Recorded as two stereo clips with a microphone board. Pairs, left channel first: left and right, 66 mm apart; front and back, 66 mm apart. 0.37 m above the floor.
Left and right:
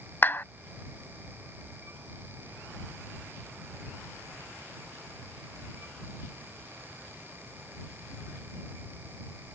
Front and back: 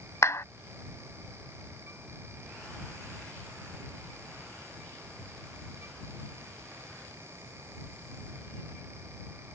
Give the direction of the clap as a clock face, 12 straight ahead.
11 o'clock.